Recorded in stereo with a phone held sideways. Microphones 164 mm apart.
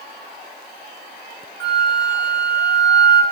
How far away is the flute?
About 1.7 m.